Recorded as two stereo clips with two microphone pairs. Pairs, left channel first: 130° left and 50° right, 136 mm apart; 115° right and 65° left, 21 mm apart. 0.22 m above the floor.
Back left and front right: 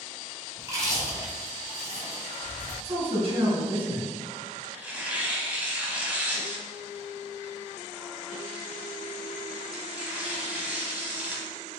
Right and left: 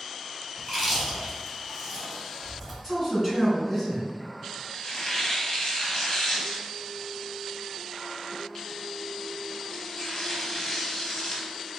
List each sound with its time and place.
0.6 s chewing: 60° right, 1.5 m
2.8 s a man speaking: 55° right, 2.0 m
4.7 s tearing paper: 115° right, 0.9 m